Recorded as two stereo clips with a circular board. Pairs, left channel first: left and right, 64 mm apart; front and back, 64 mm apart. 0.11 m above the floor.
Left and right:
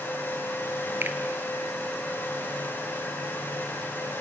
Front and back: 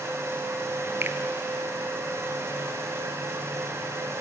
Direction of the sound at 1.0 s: 135° right.